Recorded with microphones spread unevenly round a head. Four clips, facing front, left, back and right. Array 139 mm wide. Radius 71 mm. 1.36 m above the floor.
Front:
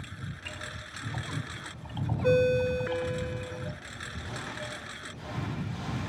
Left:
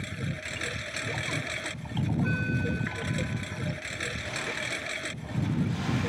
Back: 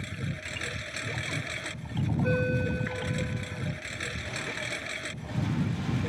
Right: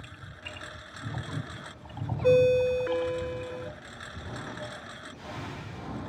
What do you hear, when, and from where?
0.0 s a lawn mower: 125° left
2.2 s a ringtone: 60° right